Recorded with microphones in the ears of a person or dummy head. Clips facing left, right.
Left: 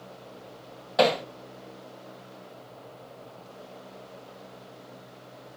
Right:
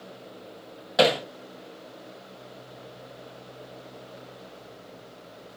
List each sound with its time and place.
1.0 s hammering: 10° right (ahead or behind), 1.0 m